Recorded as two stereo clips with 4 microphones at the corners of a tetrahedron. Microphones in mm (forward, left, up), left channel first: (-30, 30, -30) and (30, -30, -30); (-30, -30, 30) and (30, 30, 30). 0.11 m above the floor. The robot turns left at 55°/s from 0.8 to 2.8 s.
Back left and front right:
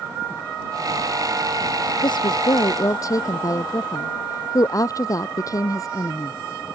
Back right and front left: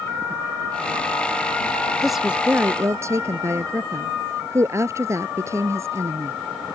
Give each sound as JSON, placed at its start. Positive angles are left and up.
{"t": 2.0, "sound": "a woman speaking", "azimuth_deg": 135}